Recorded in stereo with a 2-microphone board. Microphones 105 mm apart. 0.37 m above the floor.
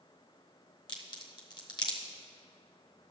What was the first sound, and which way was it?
A crack, 45° left (ahead or behind).